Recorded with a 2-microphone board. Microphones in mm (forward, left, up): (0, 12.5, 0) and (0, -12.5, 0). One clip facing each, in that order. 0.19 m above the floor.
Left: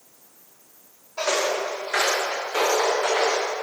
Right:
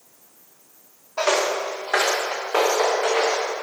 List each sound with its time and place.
1.2 s footsteps: 40° right (ahead or behind), 2 m; by 3.4 s 80° right, 4 m